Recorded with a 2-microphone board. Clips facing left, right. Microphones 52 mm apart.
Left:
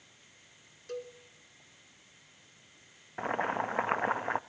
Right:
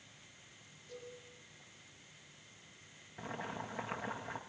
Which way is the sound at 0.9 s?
75° left (ahead or behind).